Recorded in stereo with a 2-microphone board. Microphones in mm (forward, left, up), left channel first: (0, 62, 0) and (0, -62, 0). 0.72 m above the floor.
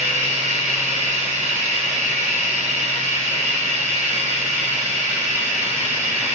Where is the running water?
75° right (ahead or behind), 1.6 m.